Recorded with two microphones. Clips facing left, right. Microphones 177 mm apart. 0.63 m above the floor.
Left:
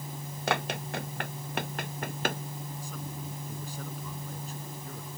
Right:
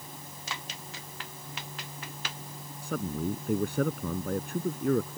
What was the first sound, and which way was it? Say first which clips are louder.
Running footsteps: left 13 dB; 65° left (ahead or behind).